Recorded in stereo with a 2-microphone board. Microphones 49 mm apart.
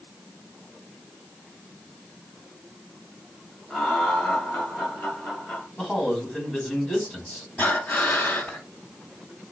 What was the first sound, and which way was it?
Laughter, 5° left (ahead or behind).